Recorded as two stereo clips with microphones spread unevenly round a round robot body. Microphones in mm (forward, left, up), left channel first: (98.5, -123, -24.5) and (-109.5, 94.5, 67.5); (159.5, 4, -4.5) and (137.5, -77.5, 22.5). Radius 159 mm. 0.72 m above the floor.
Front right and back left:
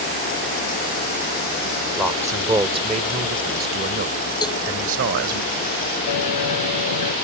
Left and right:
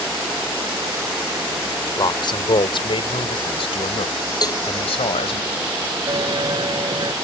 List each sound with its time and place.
2.0 s a man speaking: 45° left; by 5.4 s 85° left
4.4 s a cowbell: 35° left
6.1 s a bell: 75° right